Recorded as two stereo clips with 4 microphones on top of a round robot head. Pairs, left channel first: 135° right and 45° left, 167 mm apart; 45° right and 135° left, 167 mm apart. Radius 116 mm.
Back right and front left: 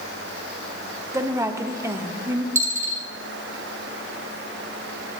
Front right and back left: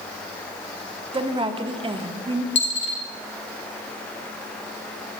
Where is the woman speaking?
105° left, 1.0 m.